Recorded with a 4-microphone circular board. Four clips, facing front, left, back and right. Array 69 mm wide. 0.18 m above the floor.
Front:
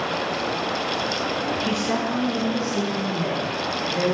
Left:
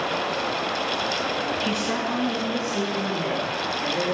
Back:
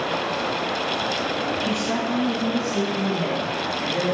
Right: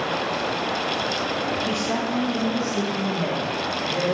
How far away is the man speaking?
About 1.9 m.